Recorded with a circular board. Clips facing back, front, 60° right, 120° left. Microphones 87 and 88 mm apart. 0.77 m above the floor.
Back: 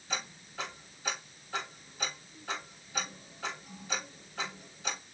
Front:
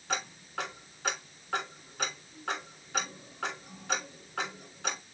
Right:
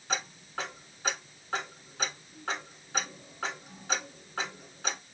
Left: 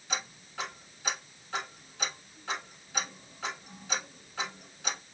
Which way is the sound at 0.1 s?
15° right.